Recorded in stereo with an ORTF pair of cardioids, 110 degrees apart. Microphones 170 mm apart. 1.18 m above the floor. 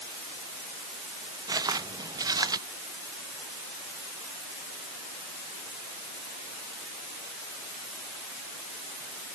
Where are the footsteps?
25° right.